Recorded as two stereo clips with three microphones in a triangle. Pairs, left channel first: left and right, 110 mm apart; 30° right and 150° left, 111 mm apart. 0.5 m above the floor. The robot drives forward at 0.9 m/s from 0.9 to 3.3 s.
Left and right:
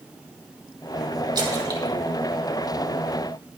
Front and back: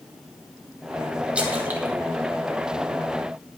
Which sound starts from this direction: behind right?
A splash, at 1.4 s.